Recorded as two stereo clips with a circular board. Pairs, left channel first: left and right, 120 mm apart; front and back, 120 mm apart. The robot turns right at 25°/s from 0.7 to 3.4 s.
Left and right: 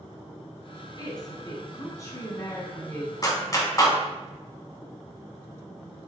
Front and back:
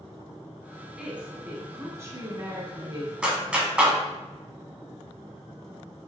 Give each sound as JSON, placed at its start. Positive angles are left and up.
{"t": 1.0, "sound": "a woman speaking", "azimuth_deg": 105, "distance_m": 1.3}
{"t": 3.2, "sound": "a clap", "azimuth_deg": 105, "distance_m": 1.0}